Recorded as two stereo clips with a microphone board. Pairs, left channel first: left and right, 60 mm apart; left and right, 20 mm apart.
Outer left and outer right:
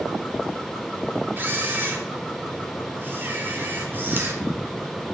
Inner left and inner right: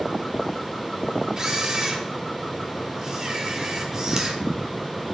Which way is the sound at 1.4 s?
35° right (ahead or behind).